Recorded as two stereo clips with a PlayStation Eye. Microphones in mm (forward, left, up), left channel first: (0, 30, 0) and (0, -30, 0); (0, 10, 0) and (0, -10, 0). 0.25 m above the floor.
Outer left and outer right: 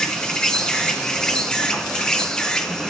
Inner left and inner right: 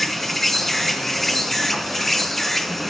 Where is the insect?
15° left (ahead or behind), 2 m.